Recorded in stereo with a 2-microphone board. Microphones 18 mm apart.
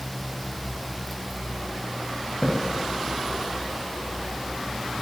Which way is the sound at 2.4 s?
40° left (ahead or behind).